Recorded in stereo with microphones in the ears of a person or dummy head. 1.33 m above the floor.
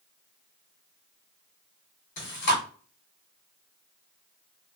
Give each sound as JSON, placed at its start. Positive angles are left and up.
{"t": 2.2, "sound": "chewing", "side_deg": 55, "distance_m": 1.4}